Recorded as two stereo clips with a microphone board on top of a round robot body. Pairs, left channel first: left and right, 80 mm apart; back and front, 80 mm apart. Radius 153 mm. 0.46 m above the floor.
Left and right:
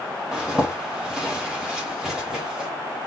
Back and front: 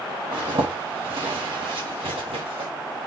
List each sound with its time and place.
0.3 s a zipper: 10° right, 2.0 m